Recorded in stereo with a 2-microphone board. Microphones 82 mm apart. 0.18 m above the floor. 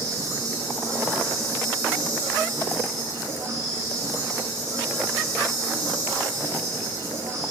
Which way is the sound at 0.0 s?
35° right (ahead or behind).